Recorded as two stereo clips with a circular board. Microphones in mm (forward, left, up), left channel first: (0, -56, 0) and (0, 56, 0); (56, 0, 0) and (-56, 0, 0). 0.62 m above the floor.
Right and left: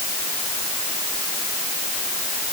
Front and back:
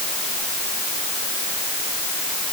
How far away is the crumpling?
No crumpling in this recording.